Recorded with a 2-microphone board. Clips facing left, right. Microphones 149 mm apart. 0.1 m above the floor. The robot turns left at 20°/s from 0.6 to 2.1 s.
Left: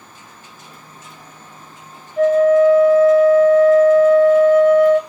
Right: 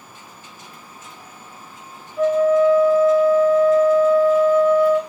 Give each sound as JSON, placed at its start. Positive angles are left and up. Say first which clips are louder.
{"t": 2.2, "sound": "a flute", "louder": "left 4 dB", "side_deg": 75, "distance_m": 1.9}